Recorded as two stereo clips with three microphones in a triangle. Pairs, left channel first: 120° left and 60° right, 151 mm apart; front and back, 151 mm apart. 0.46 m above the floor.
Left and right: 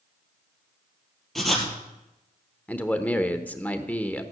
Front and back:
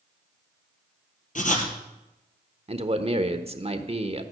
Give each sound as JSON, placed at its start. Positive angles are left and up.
{"t": 1.4, "sound": "writing", "azimuth_deg": 30, "distance_m": 2.5}
{"t": 2.7, "sound": "a man speaking", "azimuth_deg": -165, "distance_m": 1.2}